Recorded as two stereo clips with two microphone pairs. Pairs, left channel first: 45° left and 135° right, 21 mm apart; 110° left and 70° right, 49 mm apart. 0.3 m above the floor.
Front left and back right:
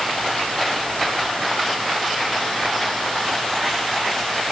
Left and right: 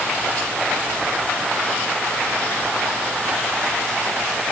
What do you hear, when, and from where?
Only background noise.